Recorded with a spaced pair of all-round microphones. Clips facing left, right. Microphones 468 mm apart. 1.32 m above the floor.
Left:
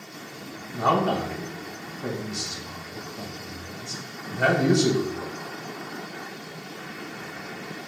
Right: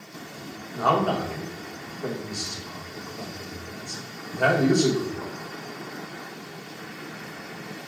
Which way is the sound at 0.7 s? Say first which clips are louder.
Even; 40° left (ahead or behind).